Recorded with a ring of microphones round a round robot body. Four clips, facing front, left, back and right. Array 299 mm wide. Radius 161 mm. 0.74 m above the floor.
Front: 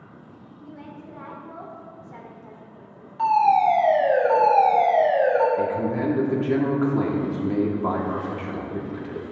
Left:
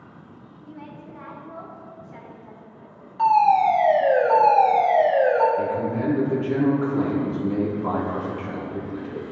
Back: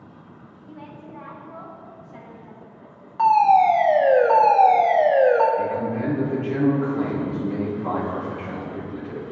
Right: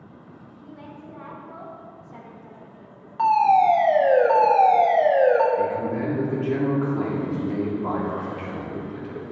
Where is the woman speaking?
30° right, 3 m; by 3.1 s 10° right, 2.5 m.